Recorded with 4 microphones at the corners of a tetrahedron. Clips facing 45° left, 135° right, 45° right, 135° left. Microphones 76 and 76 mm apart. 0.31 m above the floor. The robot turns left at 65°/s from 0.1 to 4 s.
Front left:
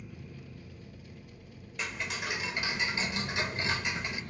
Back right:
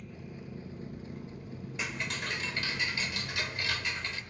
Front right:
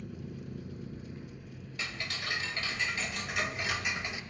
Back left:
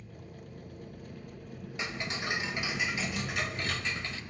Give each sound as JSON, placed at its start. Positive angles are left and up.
{"t": 0.0, "sound": "an engine running", "azimuth_deg": -40, "distance_m": 0.9}
{"t": 1.8, "sound": "ticking", "azimuth_deg": 145, "distance_m": 0.7}